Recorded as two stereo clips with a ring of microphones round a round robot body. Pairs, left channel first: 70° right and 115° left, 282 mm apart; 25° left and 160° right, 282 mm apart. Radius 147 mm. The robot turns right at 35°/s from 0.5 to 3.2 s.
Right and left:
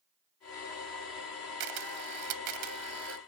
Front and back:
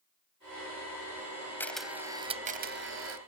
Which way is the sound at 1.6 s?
105° left.